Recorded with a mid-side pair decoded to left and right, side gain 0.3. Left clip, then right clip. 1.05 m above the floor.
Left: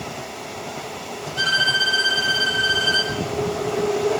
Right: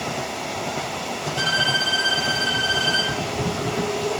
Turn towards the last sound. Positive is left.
turn(degrees=30)